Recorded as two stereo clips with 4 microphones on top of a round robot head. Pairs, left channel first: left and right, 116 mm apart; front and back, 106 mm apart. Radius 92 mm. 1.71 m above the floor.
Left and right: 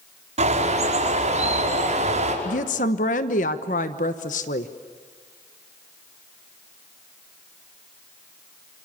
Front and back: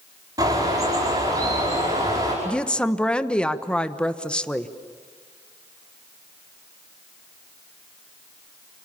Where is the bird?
115° right, 5 m.